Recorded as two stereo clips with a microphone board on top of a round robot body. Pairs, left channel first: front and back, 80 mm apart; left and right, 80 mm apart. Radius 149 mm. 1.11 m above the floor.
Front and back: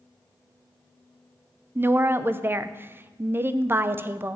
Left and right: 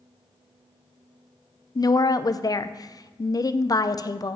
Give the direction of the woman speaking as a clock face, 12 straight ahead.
8 o'clock.